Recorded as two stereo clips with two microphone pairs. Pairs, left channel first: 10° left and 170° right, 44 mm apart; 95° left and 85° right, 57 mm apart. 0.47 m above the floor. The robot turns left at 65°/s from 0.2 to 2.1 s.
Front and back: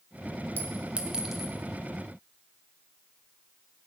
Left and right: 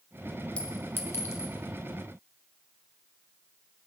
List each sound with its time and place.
0.6 s a clink: 160° left, 1.3 m; by 1.5 s 100° left, 1.3 m